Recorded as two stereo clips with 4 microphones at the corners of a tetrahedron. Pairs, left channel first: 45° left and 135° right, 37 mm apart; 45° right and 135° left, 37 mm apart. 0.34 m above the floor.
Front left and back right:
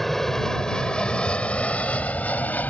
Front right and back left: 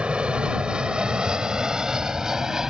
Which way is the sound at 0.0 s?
120° left.